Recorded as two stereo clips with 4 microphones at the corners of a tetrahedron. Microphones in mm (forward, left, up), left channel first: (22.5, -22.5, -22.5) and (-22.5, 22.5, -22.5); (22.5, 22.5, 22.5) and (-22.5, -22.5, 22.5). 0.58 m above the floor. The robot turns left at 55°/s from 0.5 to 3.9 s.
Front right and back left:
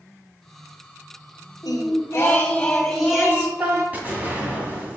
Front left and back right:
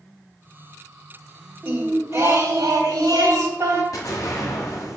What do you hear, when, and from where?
1.6 s singing: 60° right, 1.8 m; by 3.8 s straight behind, 1.8 m
3.9 s an explosion: 70° left, 1.7 m